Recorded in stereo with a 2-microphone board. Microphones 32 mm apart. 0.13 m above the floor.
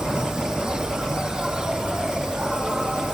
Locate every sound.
0.0 s an insect: 25° right (ahead or behind)